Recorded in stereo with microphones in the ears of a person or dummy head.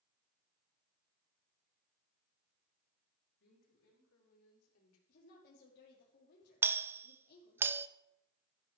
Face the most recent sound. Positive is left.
turn(degrees=-15)  # may be behind; listen again after turning